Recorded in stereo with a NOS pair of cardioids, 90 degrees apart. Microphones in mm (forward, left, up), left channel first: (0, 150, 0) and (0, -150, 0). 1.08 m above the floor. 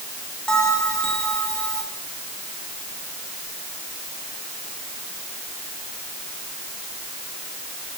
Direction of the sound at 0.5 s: 5° left.